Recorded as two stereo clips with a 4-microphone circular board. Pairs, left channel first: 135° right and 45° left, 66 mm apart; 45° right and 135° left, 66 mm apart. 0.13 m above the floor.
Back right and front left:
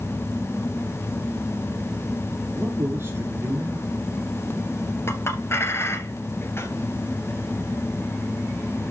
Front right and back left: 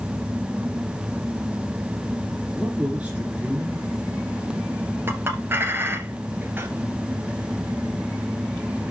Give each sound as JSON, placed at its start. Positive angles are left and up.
{"t": 2.5, "sound": "a man speaking", "azimuth_deg": 75, "distance_m": 2.0}
{"t": 5.1, "sound": "a clink", "azimuth_deg": -175, "distance_m": 1.9}